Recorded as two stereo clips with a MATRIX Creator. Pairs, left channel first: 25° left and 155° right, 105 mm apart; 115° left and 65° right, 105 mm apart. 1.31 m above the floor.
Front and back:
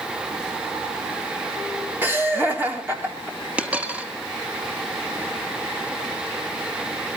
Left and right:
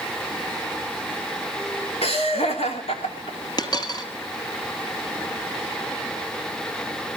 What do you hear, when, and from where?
2.0 s laughter: 130° left, 4 m
3.6 s a dropped coin: 130° left, 1.6 m